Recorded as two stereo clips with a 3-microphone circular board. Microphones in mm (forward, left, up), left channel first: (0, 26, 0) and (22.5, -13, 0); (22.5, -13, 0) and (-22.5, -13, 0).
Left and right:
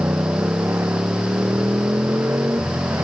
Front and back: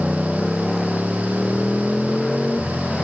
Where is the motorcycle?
90° right; by 3.0 s 75° right.